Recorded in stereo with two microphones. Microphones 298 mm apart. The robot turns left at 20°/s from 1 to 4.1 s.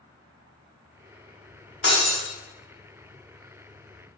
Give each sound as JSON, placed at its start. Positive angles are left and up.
{"t": 1.8, "sound": "breaking glass", "side_deg": 35, "distance_m": 0.7}